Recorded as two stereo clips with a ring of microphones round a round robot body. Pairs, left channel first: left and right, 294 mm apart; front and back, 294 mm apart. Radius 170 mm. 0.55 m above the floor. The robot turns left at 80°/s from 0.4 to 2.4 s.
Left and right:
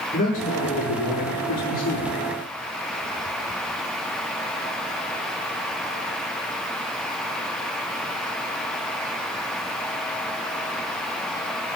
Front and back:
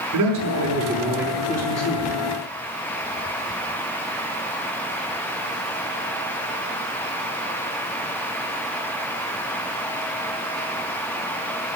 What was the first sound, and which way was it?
A man speaking, 155° left.